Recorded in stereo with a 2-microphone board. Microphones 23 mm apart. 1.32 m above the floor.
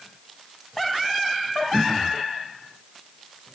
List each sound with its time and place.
1.7 s throat clearing: centre (ahead or behind), 0.6 m